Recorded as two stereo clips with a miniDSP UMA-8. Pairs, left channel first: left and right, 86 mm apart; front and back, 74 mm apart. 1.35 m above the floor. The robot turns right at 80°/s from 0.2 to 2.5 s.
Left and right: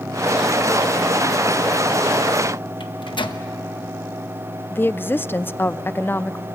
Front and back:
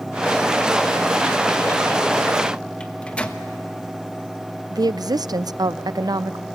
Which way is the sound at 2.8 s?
75° left.